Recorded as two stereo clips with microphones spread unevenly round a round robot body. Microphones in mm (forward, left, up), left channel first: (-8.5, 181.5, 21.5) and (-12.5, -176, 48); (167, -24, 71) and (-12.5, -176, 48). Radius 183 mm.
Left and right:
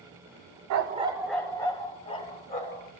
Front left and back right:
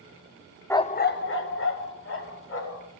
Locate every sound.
0.7 s a dog barking: 45° right, 0.6 m; by 2.9 s 20° left, 3 m